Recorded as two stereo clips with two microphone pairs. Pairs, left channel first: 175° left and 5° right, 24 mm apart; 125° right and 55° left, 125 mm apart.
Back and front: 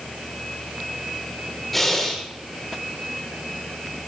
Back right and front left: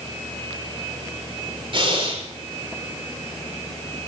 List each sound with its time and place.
1.7 s breathing: 95° left, 5.5 m